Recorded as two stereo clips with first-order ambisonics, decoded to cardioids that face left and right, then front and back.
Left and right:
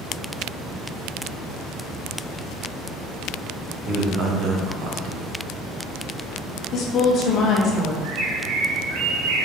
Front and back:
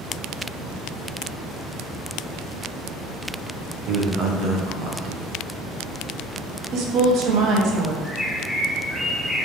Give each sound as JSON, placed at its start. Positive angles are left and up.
{"t": 3.9, "sound": "a man speaking", "azimuth_deg": -130, "distance_m": 0.8}
{"t": 6.7, "sound": "a woman speaking", "azimuth_deg": 140, "distance_m": 0.7}
{"t": 8.0, "sound": "a bird", "azimuth_deg": -90, "distance_m": 0.6}